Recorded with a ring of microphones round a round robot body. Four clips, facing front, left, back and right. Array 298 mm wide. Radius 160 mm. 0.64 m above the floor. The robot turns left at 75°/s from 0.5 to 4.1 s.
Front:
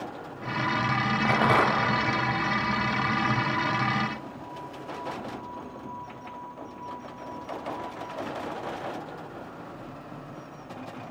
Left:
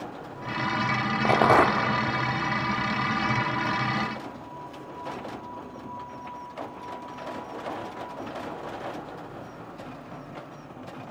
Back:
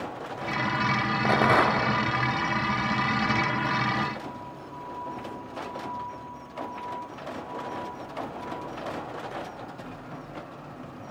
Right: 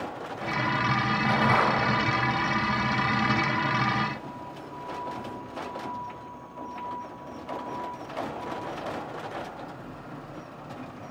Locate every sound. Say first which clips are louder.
1.2 s a rattle: left 5 dB, back 1 dB; 125° left, 1.9 m; by 1.9 s 75° left, 1.9 m